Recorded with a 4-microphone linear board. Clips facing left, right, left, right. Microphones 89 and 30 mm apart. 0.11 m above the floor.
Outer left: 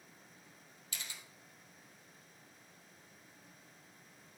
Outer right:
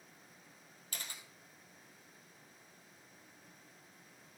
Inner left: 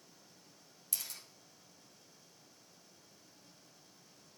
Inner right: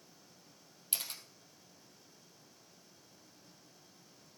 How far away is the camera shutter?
About 2.0 m.